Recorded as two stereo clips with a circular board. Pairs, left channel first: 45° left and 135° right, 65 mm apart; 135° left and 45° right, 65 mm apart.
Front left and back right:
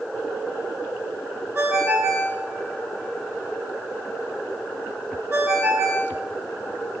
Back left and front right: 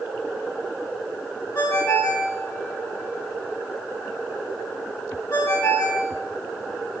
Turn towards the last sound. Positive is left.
turn(degrees=170)